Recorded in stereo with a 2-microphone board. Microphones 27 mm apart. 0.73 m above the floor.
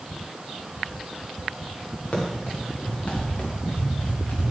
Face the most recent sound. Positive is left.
turn(degrees=55)  # may be behind; listen again after turning